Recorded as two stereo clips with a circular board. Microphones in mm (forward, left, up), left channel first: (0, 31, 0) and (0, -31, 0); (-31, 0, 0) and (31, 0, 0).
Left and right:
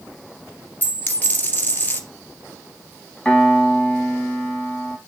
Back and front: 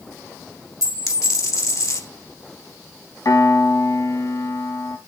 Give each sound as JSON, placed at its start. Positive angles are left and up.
{"t": 0.8, "sound": "a dropped coin", "azimuth_deg": 155, "distance_m": 2.5}
{"t": 3.2, "sound": "a piano", "azimuth_deg": 170, "distance_m": 2.5}